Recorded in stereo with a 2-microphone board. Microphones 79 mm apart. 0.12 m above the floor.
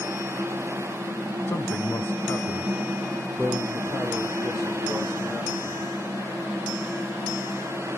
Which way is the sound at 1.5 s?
30° left (ahead or behind).